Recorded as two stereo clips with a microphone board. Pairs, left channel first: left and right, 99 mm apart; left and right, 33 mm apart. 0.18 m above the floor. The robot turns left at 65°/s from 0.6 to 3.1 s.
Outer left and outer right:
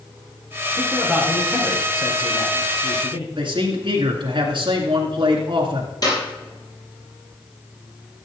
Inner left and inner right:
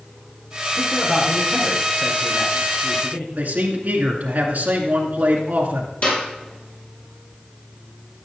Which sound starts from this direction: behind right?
A man speaking, at 0.7 s.